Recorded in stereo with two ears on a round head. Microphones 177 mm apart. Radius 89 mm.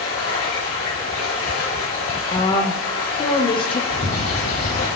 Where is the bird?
50° left (ahead or behind), 5 m.